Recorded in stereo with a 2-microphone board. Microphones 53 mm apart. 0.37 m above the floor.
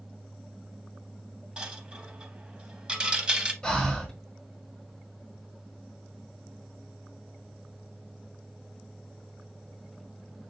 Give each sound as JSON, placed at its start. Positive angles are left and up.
{"t": 1.6, "sound": "a dropped coin", "side_deg": -20, "distance_m": 0.8}
{"t": 3.6, "sound": "breathing", "side_deg": 10, "distance_m": 1.4}